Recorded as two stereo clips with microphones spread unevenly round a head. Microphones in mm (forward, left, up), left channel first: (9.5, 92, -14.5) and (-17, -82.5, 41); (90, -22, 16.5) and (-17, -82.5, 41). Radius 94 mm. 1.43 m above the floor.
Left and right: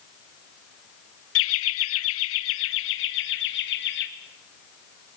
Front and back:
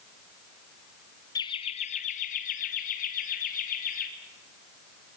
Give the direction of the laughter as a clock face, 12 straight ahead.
9 o'clock.